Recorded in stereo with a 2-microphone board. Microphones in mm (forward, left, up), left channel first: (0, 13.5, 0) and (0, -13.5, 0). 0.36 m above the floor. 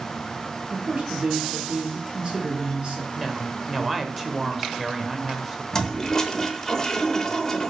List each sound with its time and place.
0.7 s a man speaking: 35° right (ahead or behind), 2.5 m
3.2 s a woman speaking: 5° right (ahead or behind), 0.9 m
5.7 s a toilet flushing: 20° left (ahead or behind), 0.7 m